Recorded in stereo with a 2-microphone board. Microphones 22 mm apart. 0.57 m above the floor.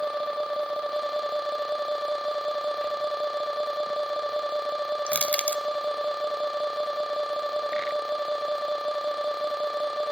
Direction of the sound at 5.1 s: 75° left (ahead or behind).